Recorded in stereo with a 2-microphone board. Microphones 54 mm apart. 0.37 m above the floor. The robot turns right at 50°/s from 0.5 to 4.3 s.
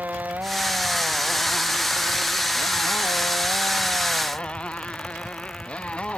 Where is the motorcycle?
30° right; by 6.2 s 160° left.